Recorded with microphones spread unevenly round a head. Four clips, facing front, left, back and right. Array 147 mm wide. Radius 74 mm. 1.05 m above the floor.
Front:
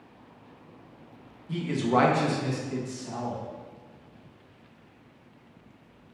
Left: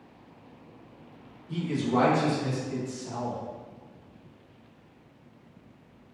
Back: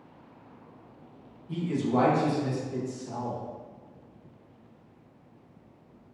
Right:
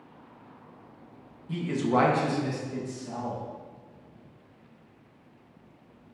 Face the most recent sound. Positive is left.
turn(degrees=50)